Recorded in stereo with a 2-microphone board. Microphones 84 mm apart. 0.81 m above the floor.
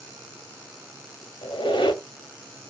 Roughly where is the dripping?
No dripping in this recording.